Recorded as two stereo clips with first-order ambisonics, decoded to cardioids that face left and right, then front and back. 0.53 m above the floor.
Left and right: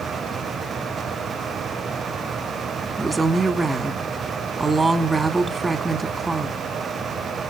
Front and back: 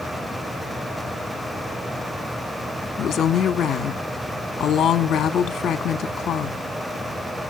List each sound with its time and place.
3.0 s a woman speaking: 15° right, 1.2 m